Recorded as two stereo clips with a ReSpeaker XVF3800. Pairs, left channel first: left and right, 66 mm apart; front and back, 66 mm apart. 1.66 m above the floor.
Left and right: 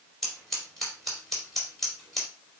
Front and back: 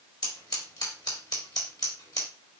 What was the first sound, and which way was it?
Scissors, 5° left.